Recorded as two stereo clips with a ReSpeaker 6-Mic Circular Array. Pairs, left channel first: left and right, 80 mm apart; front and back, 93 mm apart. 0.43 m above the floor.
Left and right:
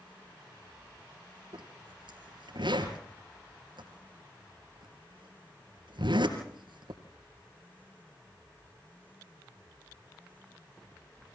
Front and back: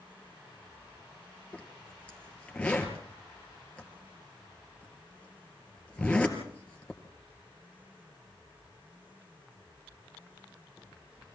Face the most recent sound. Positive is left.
turn(degrees=-80)